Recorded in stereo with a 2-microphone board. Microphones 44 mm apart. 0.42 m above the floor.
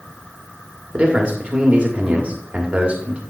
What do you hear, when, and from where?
0.9 s a man speaking: 25° right (ahead or behind), 1.2 m